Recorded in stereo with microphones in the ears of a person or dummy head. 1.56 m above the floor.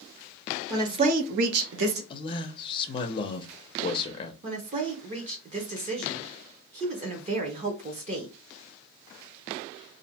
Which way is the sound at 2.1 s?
30° left (ahead or behind).